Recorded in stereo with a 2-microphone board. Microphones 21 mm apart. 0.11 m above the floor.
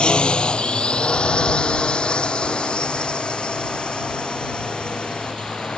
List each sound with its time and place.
0.0 s a drone: 50° left (ahead or behind)